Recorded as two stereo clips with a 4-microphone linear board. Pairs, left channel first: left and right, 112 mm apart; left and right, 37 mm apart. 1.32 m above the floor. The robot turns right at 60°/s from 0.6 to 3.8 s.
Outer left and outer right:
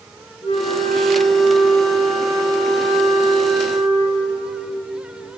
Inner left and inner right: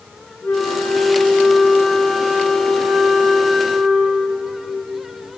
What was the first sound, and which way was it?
A flute, 95° left.